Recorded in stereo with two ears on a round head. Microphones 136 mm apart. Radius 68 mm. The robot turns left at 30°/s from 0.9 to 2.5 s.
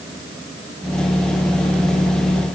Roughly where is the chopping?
I don't hear chopping.